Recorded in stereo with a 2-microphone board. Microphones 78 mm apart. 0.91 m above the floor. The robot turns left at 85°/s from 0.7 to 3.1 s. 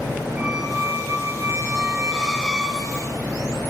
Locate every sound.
0.4 s a squeak: 10° right (ahead or behind), 0.8 m; by 3.1 s 15° left (ahead or behind), 0.8 m